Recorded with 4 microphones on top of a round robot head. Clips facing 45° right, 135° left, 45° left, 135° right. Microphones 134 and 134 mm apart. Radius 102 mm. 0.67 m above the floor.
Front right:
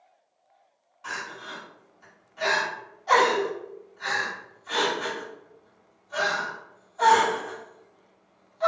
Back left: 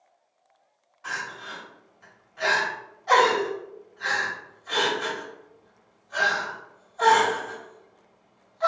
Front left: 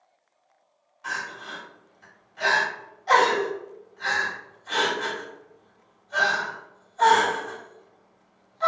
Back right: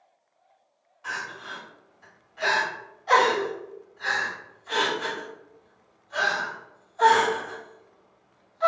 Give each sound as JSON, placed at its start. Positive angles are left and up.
{"t": 1.0, "sound": "crying", "azimuth_deg": 20, "distance_m": 1.7}